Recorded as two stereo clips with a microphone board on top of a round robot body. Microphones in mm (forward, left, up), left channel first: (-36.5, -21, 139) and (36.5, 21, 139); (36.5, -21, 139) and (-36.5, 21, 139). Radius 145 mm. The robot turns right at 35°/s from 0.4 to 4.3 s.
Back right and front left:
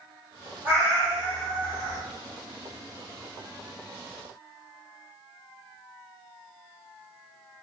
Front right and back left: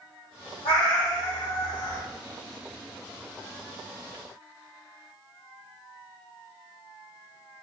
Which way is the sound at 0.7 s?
40° right.